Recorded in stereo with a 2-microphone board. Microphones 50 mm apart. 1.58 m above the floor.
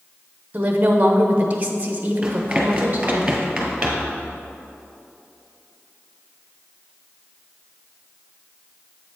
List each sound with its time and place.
0.5 s a woman speaking: 30° right (ahead or behind), 0.9 m
2.2 s running footsteps: 15° right (ahead or behind), 1.6 m; by 4.2 s 10° right (ahead or behind), 1.7 m